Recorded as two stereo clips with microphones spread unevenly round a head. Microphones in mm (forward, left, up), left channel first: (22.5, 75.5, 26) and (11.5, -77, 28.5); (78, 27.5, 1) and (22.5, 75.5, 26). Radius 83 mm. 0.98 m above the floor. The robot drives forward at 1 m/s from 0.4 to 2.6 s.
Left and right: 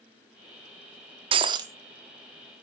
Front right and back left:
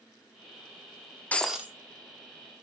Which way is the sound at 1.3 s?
135° right.